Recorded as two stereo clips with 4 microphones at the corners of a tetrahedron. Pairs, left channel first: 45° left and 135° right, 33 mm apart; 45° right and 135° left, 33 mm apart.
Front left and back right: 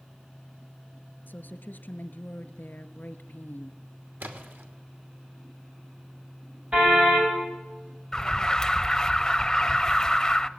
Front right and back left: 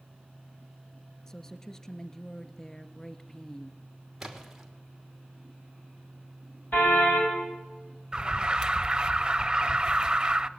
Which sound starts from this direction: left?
An alarm, at 8.1 s.